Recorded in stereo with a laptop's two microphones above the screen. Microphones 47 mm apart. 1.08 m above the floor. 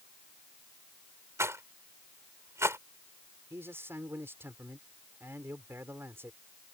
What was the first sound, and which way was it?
A rattle, 80° right.